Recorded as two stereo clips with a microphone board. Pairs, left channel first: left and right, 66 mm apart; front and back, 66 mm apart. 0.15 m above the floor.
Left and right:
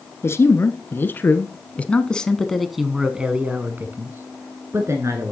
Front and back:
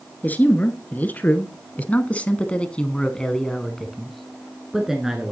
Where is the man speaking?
55° left, 1.7 m; by 5.3 s 100° right, 1.6 m.